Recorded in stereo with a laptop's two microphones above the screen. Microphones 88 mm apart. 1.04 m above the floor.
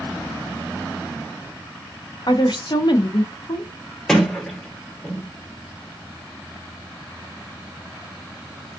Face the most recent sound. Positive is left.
turn(degrees=5)  # may be behind; listen again after turning